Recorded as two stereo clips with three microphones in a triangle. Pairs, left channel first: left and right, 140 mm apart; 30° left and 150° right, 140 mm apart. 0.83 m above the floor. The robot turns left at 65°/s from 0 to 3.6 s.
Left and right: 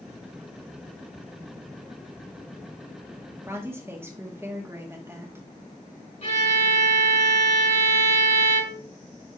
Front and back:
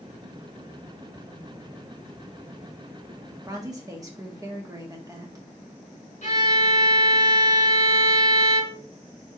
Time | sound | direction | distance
3.4 | a woman speaking | 125° right | 0.9 m
6.2 | a violin | 55° left | 2.5 m